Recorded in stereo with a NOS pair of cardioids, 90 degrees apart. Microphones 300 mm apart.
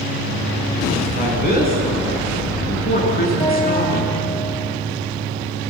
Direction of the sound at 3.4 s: 15° left.